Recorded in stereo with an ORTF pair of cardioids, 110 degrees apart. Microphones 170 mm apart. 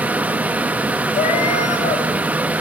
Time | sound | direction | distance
0.0 | a fan | 10° right | 0.8 m
1.1 | a cat meowing | 50° left | 4 m